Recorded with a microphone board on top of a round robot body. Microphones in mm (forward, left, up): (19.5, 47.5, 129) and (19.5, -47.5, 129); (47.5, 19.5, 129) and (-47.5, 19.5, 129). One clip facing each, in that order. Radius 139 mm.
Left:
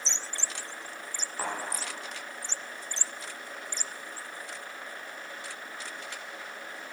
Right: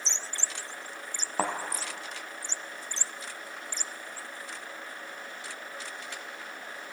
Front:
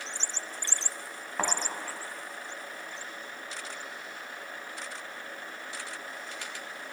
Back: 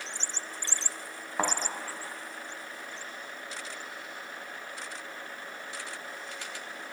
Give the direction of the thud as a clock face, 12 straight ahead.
3 o'clock.